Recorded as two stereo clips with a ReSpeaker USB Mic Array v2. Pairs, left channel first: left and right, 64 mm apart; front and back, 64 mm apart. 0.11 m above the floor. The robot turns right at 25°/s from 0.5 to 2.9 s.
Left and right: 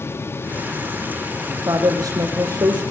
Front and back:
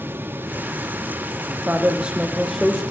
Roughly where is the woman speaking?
Behind right.